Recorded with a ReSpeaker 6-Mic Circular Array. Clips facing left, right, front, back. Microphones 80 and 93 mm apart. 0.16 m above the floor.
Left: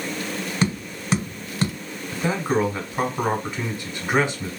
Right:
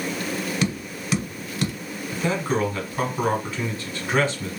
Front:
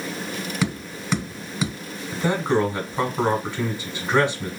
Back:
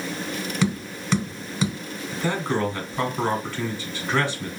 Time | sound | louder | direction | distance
0.6 | tapping | left 2 dB, back 3 dB | 85° left | 1.0 m
2.1 | a man speaking | left 2 dB, front 4 dB | 40° left | 1.1 m